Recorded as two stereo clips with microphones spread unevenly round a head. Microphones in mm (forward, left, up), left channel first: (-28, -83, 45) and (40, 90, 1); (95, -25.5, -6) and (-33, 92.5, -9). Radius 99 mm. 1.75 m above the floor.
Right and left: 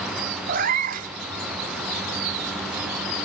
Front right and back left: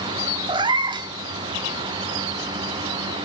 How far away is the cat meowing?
About 1.4 m.